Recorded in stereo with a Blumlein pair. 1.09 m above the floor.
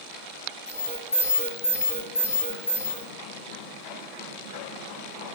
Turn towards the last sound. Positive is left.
turn(degrees=65)